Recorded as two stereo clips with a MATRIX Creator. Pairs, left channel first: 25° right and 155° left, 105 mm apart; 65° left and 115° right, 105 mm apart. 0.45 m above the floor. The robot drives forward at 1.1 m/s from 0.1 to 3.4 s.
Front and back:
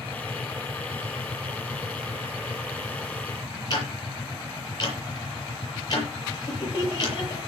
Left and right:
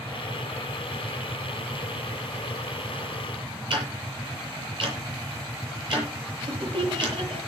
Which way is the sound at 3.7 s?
70° right.